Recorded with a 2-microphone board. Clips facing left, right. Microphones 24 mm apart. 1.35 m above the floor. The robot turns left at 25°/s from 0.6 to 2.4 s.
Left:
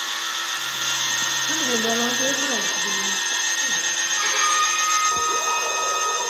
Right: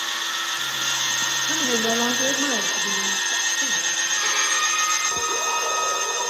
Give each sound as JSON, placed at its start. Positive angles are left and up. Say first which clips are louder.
{"t": 1.5, "sound": "a woman speaking", "louder": "even", "side_deg": -20, "distance_m": 1.7}
{"t": 4.1, "sound": "a violin", "louder": "left 4 dB", "side_deg": 55, "distance_m": 5.0}